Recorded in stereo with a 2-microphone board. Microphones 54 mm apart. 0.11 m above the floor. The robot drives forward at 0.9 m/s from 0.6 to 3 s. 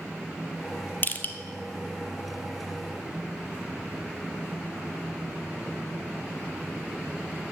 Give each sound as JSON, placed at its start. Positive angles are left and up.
{"t": 1.0, "sound": "crushing", "side_deg": 35, "distance_m": 0.7}